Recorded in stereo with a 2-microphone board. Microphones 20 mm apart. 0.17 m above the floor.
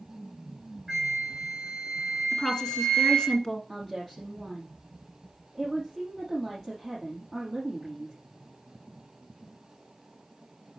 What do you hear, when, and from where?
0.9 s a flute: 15° right (ahead or behind), 4.5 m
2.3 s a woman speaking: 40° left (ahead or behind), 2.5 m
3.7 s a woman speaking: 10° right (ahead or behind), 4.5 m